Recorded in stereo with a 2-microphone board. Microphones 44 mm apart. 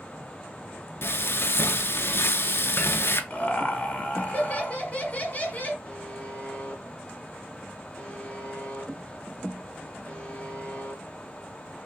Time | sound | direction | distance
1.0 | frying | 65° left (ahead or behind) | 0.6 m
3.3 | laughter | 35° left (ahead or behind) | 1.2 m
5.8 | a buzzer | 30° left (ahead or behind) | 2.5 m